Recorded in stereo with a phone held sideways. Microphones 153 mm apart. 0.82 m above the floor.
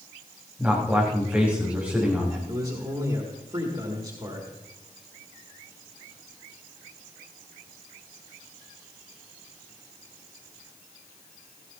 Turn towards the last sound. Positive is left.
turn(degrees=-40)  # may be behind; listen again after turning